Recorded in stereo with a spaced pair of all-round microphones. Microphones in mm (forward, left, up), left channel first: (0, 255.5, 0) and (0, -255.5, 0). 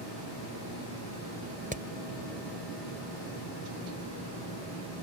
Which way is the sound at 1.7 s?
15° right (ahead or behind).